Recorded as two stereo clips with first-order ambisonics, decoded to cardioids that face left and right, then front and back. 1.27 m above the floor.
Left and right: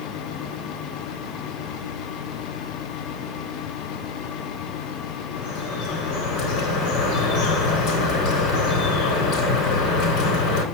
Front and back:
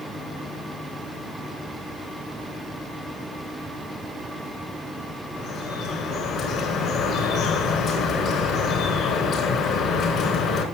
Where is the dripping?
55° left, 5 m.